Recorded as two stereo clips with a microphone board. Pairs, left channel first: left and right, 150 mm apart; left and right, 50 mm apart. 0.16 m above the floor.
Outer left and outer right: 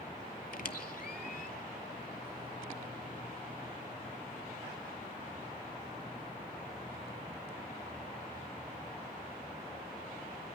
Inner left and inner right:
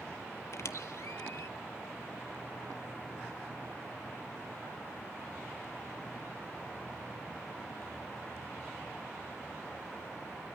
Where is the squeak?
65° left (ahead or behind), 0.6 m.